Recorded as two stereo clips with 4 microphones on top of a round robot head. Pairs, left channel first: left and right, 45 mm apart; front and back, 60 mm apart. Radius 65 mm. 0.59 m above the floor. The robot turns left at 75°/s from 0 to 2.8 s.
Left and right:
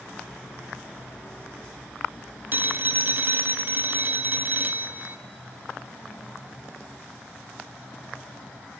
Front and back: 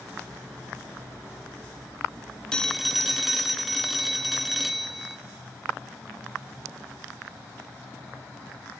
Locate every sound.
2.5 s a phone ringing: 70° right, 0.8 m; by 5.2 s 90° right, 0.8 m